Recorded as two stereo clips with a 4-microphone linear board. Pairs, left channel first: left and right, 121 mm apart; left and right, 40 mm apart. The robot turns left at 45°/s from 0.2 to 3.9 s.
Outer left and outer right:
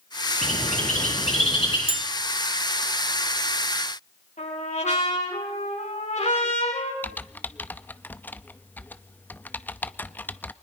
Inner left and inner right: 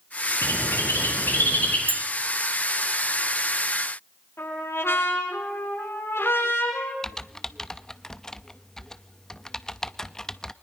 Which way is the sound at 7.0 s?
15° left (ahead or behind).